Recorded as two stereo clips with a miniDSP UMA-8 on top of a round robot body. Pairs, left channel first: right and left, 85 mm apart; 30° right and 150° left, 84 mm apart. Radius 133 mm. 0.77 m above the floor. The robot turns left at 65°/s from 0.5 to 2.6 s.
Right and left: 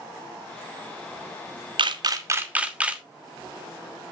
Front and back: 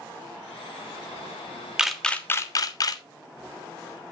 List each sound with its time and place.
1.8 s a camera shutter: 70° left, 1.4 m; by 3.0 s 15° left, 1.4 m